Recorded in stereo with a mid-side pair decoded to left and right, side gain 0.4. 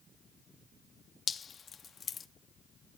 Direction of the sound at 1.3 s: 50° left.